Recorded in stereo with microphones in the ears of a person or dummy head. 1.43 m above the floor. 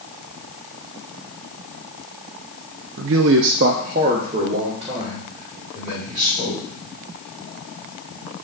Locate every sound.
3.0 s a man speaking: 55° right (ahead or behind), 0.8 m; by 6.6 s 25° right (ahead or behind), 5.5 m